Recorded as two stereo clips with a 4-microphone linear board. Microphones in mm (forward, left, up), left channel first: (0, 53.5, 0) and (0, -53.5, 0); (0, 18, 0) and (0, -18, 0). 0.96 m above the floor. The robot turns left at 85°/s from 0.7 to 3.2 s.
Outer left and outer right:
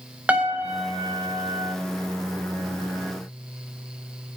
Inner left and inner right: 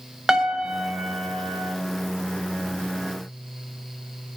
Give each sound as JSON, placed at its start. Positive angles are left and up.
{"t": 0.3, "sound": "a piano", "azimuth_deg": -165, "distance_m": 1.0}